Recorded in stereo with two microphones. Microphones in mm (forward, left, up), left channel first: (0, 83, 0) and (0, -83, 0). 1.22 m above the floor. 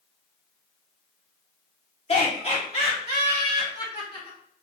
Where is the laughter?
40° left (ahead or behind), 1.7 m.